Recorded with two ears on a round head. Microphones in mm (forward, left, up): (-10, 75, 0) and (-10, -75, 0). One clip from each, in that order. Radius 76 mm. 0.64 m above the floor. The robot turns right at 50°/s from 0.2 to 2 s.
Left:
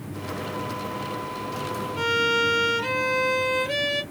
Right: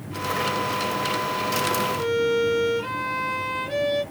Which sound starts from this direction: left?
A violin, at 2.0 s.